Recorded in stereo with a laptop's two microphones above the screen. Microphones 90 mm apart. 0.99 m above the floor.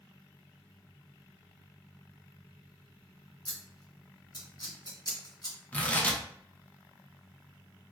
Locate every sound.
3.5 s scissors: 45° left (ahead or behind), 1.4 m
5.7 s tearing paper: 15° left (ahead or behind), 0.6 m